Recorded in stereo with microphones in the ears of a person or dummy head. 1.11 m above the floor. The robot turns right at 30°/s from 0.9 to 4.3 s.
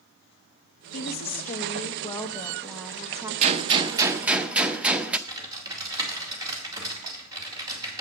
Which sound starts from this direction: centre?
Typing on a keyboard, at 5.3 s.